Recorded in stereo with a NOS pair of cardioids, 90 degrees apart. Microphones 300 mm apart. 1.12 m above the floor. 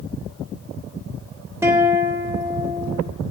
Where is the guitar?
10° right, 3 m.